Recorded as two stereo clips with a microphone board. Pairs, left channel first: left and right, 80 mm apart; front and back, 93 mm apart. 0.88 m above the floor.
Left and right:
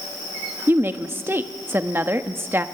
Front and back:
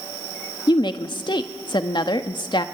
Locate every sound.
0.7 s a woman speaking: 30° right, 1.1 m